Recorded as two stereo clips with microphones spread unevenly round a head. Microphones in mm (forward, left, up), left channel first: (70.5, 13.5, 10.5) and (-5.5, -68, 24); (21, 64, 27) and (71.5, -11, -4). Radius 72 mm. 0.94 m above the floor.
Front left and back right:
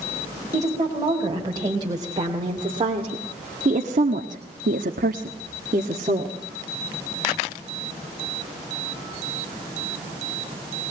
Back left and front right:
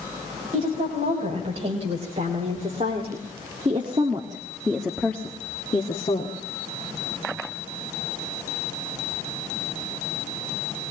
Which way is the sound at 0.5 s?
70° right.